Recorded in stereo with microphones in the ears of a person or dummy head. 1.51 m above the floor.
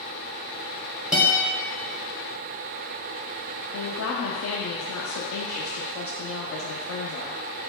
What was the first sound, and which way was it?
A guitar, 10° right (ahead or behind).